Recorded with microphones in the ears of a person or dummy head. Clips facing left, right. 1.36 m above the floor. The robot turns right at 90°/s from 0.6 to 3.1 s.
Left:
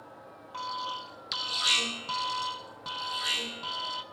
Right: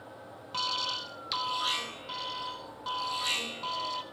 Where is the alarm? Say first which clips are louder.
Even; 60° right, 1.5 m; by 4.0 s 165° left, 1.5 m.